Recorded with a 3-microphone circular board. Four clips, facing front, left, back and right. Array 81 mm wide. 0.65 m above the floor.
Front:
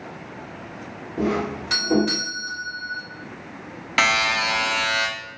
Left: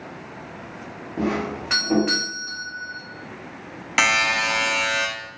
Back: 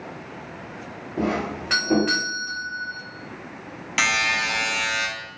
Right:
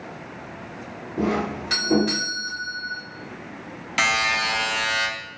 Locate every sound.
1.2 s a doorbell: 145° left, 1.4 m
4.0 s a buzzer: 40° left, 0.6 m